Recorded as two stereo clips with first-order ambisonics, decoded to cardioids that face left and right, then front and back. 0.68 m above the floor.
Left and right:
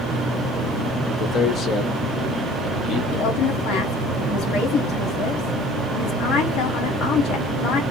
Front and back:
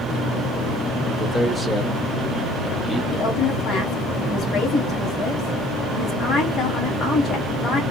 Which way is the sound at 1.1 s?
85° left.